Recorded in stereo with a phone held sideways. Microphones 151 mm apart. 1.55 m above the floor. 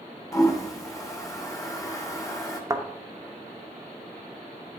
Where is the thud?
25° right (ahead or behind), 0.9 m.